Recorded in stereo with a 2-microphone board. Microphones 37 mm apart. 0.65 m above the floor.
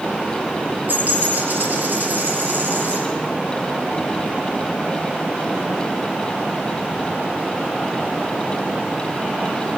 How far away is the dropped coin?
About 4.5 m.